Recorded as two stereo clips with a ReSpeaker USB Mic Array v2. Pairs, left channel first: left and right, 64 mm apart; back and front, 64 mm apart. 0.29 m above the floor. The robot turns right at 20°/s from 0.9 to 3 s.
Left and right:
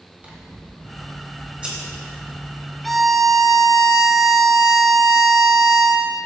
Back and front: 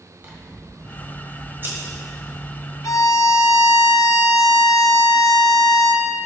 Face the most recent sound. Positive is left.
turn(degrees=180)